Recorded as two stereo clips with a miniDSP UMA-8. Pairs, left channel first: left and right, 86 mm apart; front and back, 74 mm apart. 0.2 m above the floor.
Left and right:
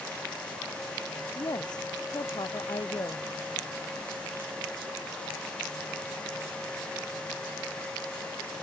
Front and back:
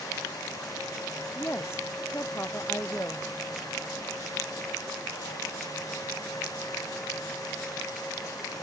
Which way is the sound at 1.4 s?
55° left.